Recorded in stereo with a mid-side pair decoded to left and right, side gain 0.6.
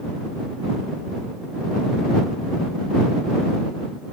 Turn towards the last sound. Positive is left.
No sound to turn to.